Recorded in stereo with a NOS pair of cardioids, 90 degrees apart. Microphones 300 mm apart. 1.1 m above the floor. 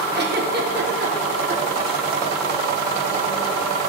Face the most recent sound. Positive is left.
turn(degrees=-35)